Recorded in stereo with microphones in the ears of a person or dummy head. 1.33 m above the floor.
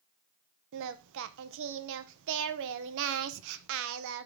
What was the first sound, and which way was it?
Singing, 65° right (ahead or behind).